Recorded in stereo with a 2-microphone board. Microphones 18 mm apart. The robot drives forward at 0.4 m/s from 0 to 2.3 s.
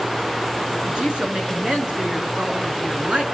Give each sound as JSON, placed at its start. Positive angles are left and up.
{"t": 0.9, "sound": "a woman speaking", "side_deg": -60, "distance_m": 6.0}